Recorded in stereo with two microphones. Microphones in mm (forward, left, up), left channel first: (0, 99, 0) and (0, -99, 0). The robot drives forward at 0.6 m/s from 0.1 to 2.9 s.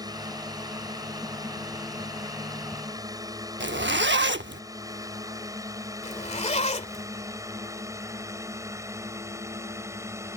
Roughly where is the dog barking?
I don't hear a dog barking.